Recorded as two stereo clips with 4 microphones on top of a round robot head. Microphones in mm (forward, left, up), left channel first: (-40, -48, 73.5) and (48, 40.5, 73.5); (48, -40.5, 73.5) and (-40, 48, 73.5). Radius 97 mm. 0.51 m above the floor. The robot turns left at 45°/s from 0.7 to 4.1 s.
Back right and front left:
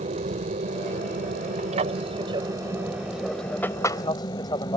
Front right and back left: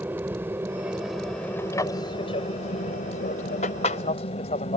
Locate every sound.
0.0 s an aircraft: 60° left; by 4.8 s 80° right